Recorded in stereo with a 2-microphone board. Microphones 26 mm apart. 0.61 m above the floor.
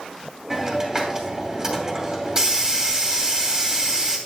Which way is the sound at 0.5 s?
25° right (ahead or behind).